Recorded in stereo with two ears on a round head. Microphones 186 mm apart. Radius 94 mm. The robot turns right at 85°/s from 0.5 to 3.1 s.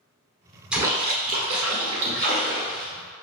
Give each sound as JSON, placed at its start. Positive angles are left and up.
{"t": 0.7, "sound": "a splash", "azimuth_deg": -175, "distance_m": 1.2}